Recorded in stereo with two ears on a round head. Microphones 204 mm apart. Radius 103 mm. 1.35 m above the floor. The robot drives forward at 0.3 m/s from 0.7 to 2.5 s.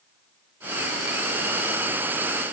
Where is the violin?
I don't hear a violin.